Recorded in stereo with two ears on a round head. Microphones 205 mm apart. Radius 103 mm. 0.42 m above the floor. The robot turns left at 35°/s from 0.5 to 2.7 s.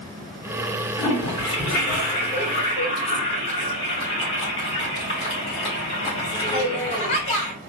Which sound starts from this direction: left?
A toilet flushing, at 1.0 s.